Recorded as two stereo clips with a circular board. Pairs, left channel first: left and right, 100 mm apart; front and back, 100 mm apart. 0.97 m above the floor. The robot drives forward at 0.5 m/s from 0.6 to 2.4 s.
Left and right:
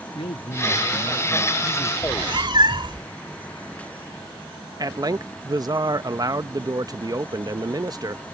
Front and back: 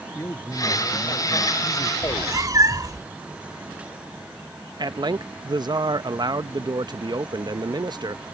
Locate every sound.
0.1 s a man speaking: 65° left
2.0 s a cat meowing: 125° right
4.8 s a man speaking: 135° right